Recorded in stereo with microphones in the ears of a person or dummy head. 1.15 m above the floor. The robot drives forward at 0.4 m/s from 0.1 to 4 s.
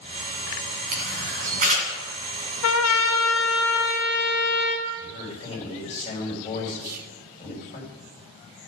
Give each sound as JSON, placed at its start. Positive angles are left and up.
{"t": 0.9, "sound": "a camera shutter", "side_deg": -50, "distance_m": 1.8}
{"t": 2.6, "sound": "a trumpet", "side_deg": 85, "distance_m": 0.6}
{"t": 5.0, "sound": "a man speaking", "side_deg": 35, "distance_m": 4.5}
{"t": 6.8, "sound": "whispering", "side_deg": -50, "distance_m": 0.7}